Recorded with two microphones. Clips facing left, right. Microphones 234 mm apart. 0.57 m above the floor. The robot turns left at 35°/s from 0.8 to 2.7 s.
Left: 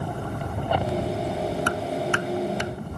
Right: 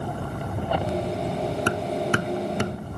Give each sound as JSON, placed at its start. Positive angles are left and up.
{"t": 1.7, "sound": "hammering", "side_deg": -25}